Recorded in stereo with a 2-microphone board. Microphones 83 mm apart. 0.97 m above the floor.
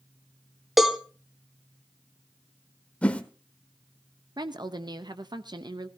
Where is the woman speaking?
60° right (ahead or behind), 0.8 m.